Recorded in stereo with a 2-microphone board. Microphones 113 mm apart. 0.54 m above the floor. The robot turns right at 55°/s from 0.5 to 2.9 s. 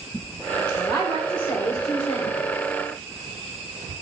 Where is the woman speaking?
35° left, 1.3 m; by 2.3 s 120° left, 1.3 m.